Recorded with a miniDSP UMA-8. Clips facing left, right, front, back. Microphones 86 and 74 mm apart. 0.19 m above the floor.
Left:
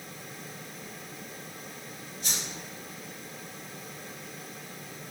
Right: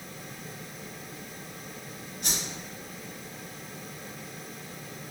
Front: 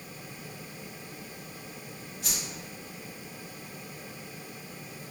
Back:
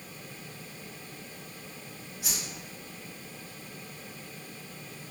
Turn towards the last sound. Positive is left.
turn(degrees=-100)